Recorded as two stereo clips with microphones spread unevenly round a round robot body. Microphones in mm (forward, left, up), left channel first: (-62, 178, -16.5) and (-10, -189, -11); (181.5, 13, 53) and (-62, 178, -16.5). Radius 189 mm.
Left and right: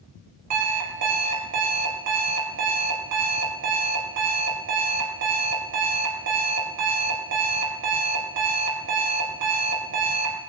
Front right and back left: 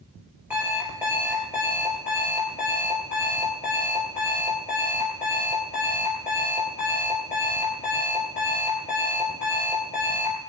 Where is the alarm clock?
130° right, 4 m.